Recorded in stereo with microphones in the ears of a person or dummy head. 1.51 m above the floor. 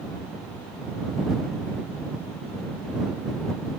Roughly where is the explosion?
No explosion in this recording.